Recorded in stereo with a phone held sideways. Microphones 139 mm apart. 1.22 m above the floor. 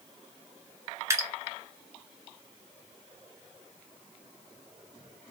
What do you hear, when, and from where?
1.1 s dripping: 20° right (ahead or behind), 0.9 m